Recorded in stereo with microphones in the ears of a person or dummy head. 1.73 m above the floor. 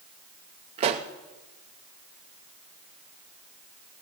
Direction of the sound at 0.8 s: 35° right (ahead or behind).